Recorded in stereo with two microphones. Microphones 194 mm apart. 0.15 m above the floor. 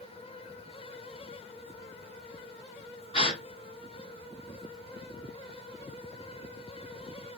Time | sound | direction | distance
3.1 | a gasp | 30° left (ahead or behind) | 1.3 m